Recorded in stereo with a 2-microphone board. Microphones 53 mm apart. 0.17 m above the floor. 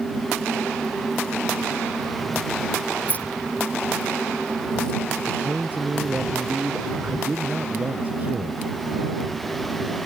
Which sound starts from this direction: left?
Keys jangling, at 3.1 s.